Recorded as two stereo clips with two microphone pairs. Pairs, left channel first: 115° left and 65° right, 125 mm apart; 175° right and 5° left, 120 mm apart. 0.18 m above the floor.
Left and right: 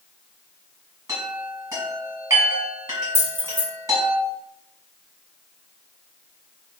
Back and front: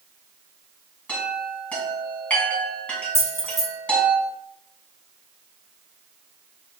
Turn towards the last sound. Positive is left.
turn(degrees=-125)